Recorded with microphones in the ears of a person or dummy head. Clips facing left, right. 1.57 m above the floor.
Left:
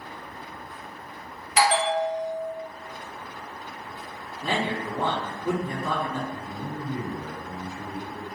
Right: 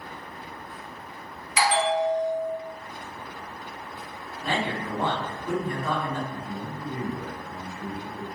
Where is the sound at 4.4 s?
70° left (ahead or behind), 1.5 m.